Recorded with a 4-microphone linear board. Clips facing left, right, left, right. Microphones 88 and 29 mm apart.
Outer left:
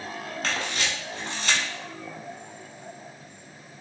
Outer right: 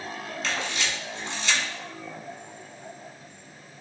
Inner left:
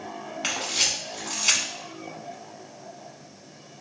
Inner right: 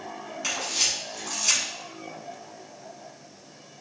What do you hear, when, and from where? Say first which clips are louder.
0.4 s a camera shutter: even, inner left 1 dB; 50° left (ahead or behind), 1.1 m